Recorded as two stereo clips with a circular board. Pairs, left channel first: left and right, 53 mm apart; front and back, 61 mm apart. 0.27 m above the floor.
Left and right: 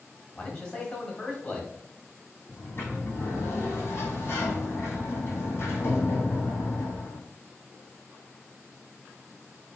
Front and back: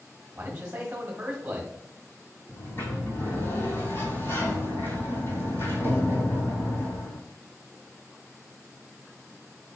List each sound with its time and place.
0.3 s a man speaking: 145° left, 1.2 m
2.5 s a sliding door: 50° left, 1.8 m